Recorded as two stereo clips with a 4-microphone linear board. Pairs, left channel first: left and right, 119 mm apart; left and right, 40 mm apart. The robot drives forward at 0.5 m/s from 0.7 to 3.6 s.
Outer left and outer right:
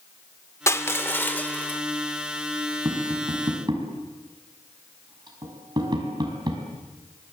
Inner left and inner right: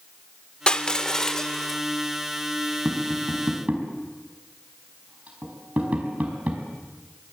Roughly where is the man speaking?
I don't hear a man speaking.